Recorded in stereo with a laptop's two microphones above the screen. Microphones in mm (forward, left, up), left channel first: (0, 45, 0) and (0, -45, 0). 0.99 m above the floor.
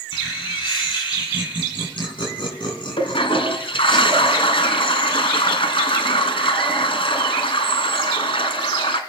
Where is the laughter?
60° left (ahead or behind), 9.5 m.